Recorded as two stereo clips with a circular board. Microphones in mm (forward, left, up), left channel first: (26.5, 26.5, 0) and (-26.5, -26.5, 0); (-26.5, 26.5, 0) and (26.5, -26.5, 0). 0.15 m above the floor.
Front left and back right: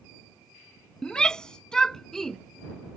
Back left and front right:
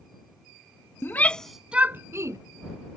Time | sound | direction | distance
1.0 | a shout | 115° left | ?